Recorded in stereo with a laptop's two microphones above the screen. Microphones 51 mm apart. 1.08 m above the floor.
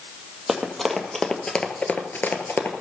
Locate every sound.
0.5 s running footsteps: centre (ahead or behind), 2 m; by 2.7 s 45° left (ahead or behind), 1.5 m